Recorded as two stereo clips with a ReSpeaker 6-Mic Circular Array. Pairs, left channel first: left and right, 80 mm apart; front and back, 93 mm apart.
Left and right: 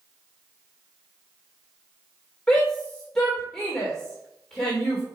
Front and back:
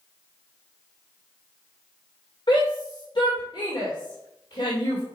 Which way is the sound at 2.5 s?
10° left.